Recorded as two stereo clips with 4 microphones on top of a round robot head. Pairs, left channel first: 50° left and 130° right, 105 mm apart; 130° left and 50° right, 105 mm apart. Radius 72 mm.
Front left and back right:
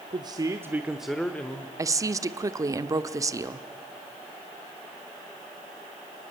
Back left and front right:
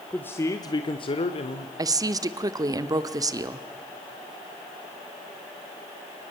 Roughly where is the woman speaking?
Right.